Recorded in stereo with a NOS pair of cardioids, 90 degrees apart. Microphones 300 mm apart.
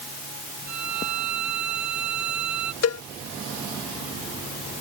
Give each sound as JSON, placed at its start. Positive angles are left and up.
{"t": 0.7, "sound": "a violin", "azimuth_deg": -65}
{"t": 2.8, "sound": "a cowbell", "azimuth_deg": 55}